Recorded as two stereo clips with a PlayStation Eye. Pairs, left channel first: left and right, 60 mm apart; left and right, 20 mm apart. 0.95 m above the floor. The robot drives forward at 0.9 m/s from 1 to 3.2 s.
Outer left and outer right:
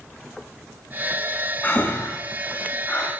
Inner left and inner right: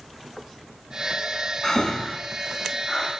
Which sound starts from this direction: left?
Breathing, at 1.6 s.